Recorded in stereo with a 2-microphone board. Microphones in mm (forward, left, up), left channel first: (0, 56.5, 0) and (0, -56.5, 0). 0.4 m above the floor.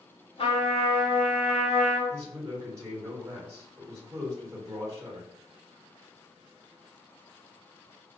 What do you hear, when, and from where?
0.4 s a trumpet: 60° left (ahead or behind), 0.8 m
2.1 s a man speaking: 25° right (ahead or behind), 1.2 m